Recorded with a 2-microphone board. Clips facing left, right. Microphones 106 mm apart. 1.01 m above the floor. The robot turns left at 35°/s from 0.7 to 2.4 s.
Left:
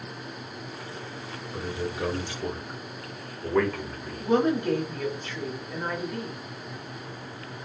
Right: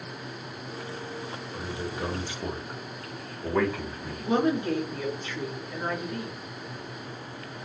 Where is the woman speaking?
10° right (ahead or behind), 2 m.